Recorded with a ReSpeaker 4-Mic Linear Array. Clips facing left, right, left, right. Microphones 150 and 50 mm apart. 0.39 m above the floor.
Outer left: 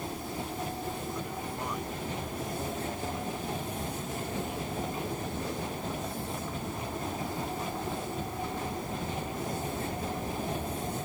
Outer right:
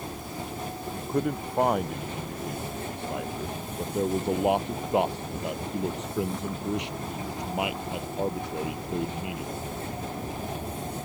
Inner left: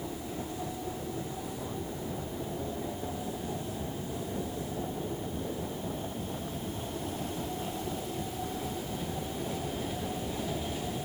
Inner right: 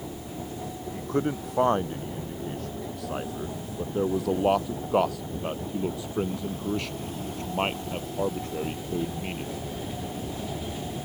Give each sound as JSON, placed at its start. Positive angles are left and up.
{"t": 0.9, "sound": "a man speaking", "side_deg": -60}